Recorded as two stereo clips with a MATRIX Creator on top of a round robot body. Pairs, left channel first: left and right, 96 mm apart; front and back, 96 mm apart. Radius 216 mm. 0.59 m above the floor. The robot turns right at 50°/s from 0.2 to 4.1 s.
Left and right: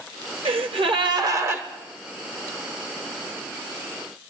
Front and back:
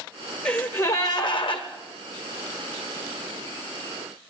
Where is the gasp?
80° right, 1.3 m; by 1.6 s 20° right, 1.3 m.